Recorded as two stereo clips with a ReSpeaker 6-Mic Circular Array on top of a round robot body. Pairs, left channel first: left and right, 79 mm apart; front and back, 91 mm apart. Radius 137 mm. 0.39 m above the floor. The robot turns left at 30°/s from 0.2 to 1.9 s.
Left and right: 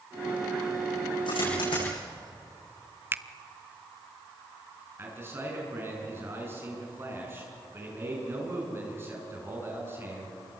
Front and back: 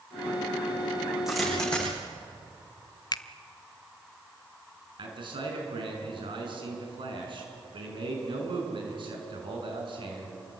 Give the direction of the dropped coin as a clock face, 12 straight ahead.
9 o'clock.